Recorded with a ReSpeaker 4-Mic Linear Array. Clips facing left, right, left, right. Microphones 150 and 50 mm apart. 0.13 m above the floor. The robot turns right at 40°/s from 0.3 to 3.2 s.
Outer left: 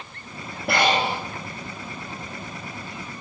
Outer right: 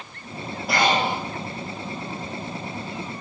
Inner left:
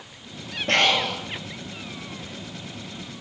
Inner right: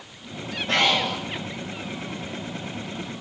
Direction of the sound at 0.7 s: 60° left (ahead or behind).